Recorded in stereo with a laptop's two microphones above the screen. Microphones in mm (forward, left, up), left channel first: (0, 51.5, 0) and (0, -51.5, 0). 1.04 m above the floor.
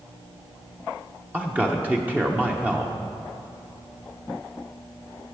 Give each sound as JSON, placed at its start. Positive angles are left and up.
{"t": 1.3, "sound": "a man speaking", "side_deg": -15, "distance_m": 0.8}